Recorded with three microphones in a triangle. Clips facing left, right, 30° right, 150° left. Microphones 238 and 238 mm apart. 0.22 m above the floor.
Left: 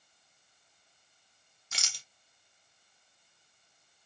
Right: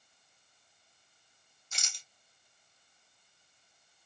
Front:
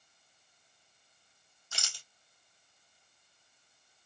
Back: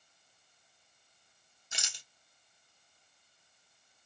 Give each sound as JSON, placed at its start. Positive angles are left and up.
{"t": 1.7, "sound": "a rattle", "azimuth_deg": 85, "distance_m": 0.5}